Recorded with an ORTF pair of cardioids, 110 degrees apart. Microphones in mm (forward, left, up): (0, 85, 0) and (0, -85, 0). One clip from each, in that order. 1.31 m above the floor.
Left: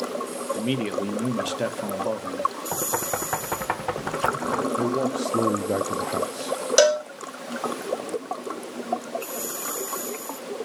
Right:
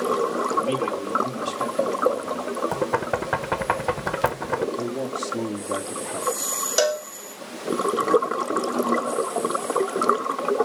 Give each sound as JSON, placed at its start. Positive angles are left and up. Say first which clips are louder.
{"t": 0.6, "sound": "a man speaking", "louder": "right 4 dB", "azimuth_deg": 40, "distance_m": 1.5}
{"t": 2.7, "sound": "knocking", "louder": "right 3 dB", "azimuth_deg": -15, "distance_m": 0.7}
{"t": 4.8, "sound": "a man speaking", "louder": "left 3 dB", "azimuth_deg": 30, "distance_m": 0.8}
{"t": 6.8, "sound": "a cowbell", "louder": "left 4 dB", "azimuth_deg": 20, "distance_m": 0.9}